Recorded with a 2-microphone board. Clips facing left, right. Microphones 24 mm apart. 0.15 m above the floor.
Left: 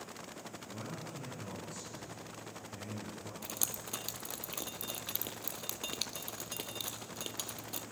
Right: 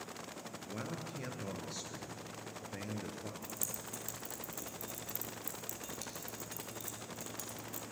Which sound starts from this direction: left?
Dripping, at 3.4 s.